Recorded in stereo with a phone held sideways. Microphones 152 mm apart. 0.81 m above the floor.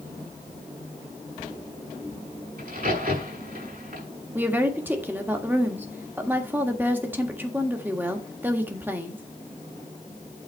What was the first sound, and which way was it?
A crack, 70° right (ahead or behind).